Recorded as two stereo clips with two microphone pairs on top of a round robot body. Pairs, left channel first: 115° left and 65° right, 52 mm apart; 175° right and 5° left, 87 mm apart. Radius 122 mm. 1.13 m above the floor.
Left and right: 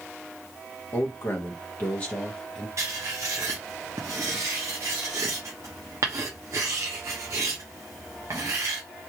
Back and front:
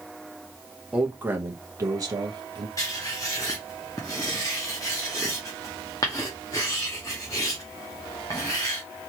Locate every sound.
0.9 s a man speaking: 80° left, 1.3 m; by 2.7 s 35° left, 1.0 m
2.8 s writing: 110° right, 0.6 m